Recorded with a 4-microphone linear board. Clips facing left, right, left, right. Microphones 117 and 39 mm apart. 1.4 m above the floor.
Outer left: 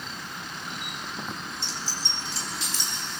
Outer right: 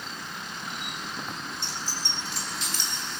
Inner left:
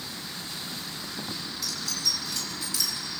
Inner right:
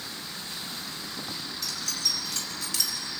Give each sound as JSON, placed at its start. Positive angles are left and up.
{"t": 1.6, "sound": "keys jangling", "side_deg": -55, "distance_m": 4.5}